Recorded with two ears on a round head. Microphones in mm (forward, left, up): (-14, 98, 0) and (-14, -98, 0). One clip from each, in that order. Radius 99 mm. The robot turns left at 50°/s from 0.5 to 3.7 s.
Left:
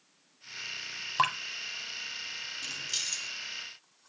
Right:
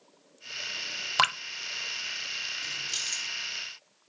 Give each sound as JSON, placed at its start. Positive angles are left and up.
{"t": 1.2, "sound": "dripping", "side_deg": -60, "distance_m": 0.8}
{"t": 2.6, "sound": "keys jangling", "side_deg": 15, "distance_m": 1.2}